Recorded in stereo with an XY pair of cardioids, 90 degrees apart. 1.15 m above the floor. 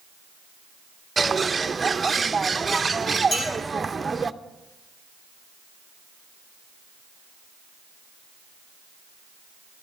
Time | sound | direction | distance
1.2 | a bird | 25° right | 0.7 m
3.3 | a clink | 70° left | 9.5 m